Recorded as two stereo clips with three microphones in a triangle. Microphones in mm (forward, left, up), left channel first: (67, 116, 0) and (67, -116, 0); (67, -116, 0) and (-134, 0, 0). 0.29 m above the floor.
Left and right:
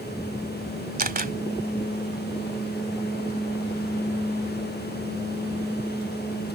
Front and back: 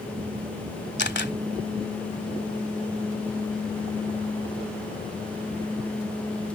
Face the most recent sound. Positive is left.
turn(degrees=-50)